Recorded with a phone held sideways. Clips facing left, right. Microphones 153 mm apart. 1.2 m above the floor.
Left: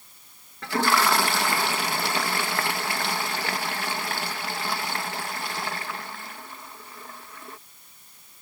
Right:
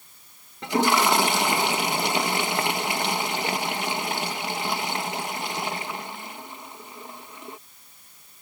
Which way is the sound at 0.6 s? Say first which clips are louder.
Right 2 dB; 20° right (ahead or behind).